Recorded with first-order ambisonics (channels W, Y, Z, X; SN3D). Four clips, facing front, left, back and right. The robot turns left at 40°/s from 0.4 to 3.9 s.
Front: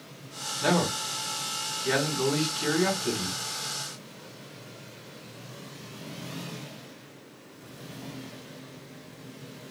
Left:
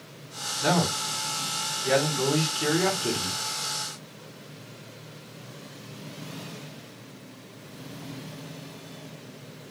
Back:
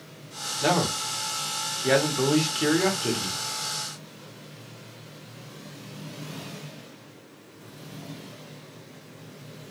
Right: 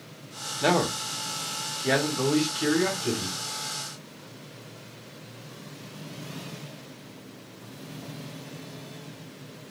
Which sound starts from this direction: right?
A man speaking, at 0.6 s.